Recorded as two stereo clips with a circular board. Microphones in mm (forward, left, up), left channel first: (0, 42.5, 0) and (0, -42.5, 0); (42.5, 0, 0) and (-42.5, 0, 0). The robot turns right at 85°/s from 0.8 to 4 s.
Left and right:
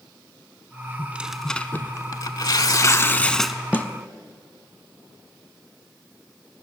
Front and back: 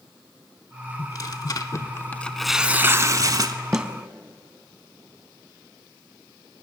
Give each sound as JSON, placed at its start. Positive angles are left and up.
{"t": 1.0, "sound": "tearing paper", "azimuth_deg": -35, "distance_m": 0.6}
{"t": 3.7, "sound": "a snare drum", "azimuth_deg": 110, "distance_m": 0.6}